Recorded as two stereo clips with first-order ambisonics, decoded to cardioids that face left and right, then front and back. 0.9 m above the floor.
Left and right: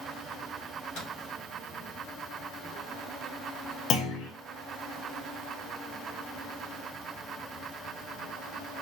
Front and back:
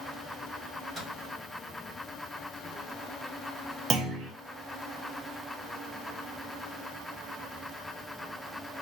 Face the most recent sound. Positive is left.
turn(degrees=125)